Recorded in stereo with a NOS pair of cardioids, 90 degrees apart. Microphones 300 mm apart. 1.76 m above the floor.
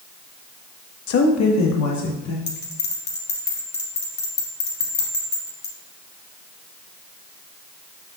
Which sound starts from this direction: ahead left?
A woman speaking, at 1.1 s.